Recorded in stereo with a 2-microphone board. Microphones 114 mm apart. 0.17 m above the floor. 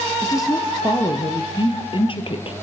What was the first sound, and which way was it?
A woman speaking, 25° left (ahead or behind).